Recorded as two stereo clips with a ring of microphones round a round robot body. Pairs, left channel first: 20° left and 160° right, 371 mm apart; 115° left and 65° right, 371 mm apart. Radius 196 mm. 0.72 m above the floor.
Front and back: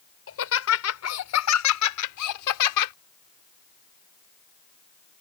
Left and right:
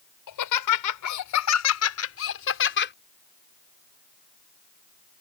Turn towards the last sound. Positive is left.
turn(degrees=50)